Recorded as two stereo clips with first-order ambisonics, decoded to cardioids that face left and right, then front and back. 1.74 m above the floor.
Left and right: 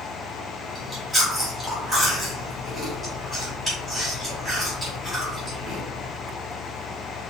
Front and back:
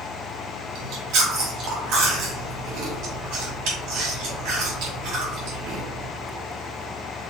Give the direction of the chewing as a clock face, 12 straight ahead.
6 o'clock.